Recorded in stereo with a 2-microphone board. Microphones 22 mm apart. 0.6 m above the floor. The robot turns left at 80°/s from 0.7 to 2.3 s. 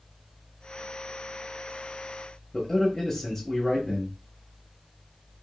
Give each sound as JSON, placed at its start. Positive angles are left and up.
{"t": 2.5, "sound": "a man speaking", "side_deg": 10, "distance_m": 1.1}